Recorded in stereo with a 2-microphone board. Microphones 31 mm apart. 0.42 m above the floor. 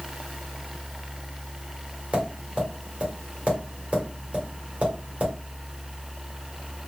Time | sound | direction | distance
2.1 | tapping | 40° right (ahead or behind) | 1.6 m